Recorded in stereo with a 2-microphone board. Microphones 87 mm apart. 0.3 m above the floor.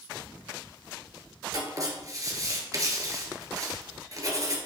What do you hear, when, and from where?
1.5 s writing: 40° right (ahead or behind), 1.3 m